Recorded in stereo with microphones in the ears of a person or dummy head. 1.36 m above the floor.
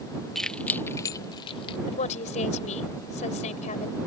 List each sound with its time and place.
0.3 s keys jangling: centre (ahead or behind); by 1.8 s 30° left (ahead or behind)
1.9 s a woman speaking: 40° left (ahead or behind)